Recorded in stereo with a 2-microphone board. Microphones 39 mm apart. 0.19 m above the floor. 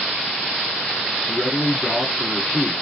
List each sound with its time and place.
1.3 s a man speaking: 20° left (ahead or behind), 1.8 m